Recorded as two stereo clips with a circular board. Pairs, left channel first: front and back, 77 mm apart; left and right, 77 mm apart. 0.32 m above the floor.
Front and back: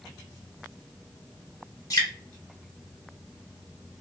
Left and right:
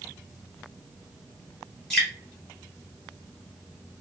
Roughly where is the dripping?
Ahead.